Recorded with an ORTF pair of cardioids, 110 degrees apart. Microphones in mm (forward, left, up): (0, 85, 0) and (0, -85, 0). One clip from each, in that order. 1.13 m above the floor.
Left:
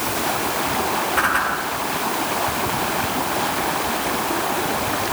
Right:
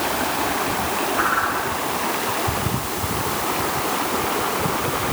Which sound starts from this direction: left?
A whoosh, at 1.2 s.